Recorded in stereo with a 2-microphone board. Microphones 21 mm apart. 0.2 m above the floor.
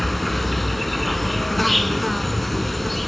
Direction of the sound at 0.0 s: 5° left (ahead or behind).